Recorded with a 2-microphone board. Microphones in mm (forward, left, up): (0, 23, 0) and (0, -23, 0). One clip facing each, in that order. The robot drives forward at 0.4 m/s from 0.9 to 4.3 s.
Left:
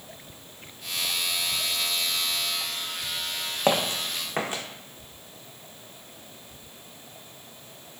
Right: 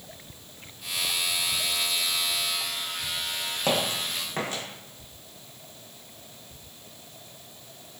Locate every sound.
3.7 s footsteps: 35° left (ahead or behind), 0.5 m; by 4.6 s 25° left (ahead or behind), 0.8 m